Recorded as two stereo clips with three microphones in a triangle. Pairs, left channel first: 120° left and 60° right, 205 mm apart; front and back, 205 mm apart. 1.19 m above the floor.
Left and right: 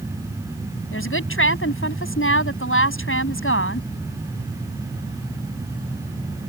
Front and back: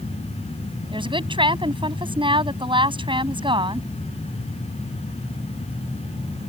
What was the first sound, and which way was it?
A woman speaking, 115° left.